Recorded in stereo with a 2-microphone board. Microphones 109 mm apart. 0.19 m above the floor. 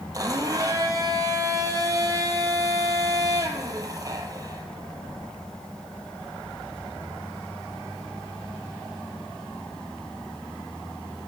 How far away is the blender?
About 0.7 m.